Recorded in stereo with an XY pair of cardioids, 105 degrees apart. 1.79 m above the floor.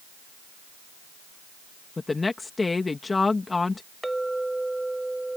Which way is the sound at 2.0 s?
25° left.